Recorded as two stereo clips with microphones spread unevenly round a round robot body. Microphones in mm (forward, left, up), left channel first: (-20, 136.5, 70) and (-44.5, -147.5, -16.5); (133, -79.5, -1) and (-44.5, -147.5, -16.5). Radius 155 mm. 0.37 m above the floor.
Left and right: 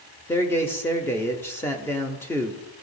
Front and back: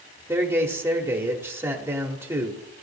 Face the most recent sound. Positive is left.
turn(degrees=-155)